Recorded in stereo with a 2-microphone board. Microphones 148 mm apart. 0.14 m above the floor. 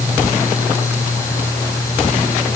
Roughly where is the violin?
I don't hear a violin.